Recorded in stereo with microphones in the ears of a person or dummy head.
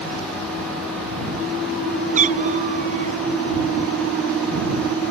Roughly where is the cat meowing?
Right.